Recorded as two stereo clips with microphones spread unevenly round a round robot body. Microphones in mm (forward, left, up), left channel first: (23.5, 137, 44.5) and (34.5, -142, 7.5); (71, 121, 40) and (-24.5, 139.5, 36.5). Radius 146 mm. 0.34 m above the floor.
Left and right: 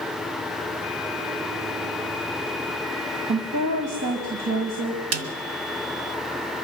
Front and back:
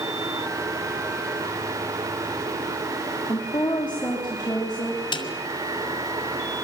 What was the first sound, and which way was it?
A woman speaking, 80° right.